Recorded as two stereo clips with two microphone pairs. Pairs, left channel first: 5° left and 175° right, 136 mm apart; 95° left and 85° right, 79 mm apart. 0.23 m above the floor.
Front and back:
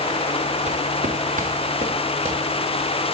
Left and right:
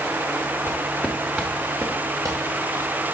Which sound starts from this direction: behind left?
Footsteps, at 0.7 s.